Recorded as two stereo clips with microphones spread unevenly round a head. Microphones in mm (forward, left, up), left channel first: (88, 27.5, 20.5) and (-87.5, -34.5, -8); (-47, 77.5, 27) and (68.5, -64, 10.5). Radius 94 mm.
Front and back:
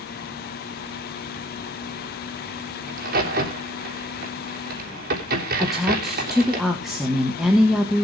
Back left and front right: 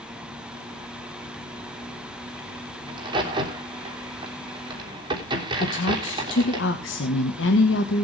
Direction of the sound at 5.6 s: 110° left.